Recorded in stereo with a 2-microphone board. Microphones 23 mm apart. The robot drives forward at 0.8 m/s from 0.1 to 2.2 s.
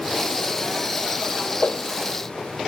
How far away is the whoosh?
About 0.9 m.